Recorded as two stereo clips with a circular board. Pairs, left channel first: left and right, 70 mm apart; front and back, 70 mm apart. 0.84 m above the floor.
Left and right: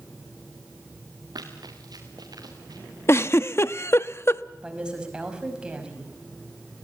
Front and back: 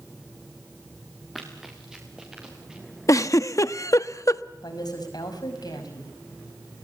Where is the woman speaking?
15° right, 5 m.